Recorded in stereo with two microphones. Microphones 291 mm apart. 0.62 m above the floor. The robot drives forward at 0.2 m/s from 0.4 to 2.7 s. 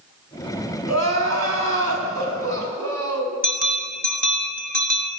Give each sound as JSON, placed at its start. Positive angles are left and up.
{"t": 0.9, "sound": "crying", "side_deg": -65, "distance_m": 2.0}
{"t": 3.4, "sound": "a bell", "side_deg": -30, "distance_m": 1.5}